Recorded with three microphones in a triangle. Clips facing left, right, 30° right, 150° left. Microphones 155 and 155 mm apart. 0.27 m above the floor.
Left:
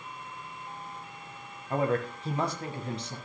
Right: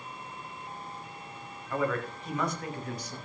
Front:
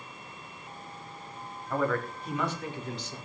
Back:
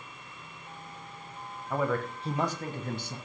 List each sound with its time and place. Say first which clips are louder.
1.7 s a man speaking: left 3 dB, even; 75° left, 1.3 m; by 3.2 s 150° left, 1.9 m